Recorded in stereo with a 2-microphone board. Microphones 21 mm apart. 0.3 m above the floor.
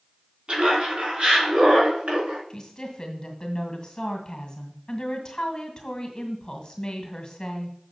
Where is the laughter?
55° right (ahead or behind), 3 m; by 2.4 s 75° right (ahead or behind), 4 m.